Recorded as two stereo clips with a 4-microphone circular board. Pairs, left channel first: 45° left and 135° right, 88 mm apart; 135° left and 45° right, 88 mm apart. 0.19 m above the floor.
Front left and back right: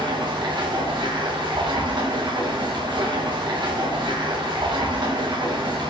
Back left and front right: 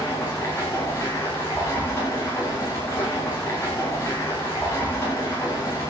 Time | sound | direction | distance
0.0 | running water | 165° right | 6.5 m